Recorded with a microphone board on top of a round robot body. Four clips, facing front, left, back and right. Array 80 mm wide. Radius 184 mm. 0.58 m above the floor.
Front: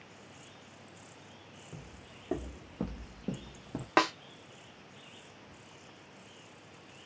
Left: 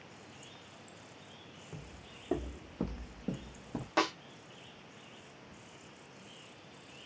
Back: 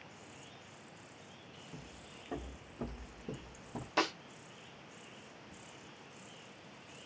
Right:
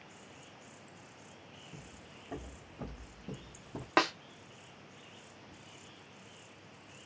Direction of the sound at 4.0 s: 35° right.